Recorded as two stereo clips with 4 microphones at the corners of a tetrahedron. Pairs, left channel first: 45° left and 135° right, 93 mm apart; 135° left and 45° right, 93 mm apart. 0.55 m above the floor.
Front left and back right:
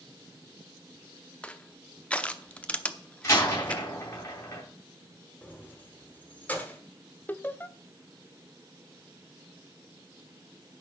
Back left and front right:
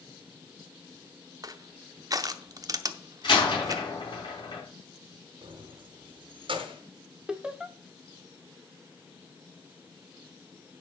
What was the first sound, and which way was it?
Crushing, 30° right.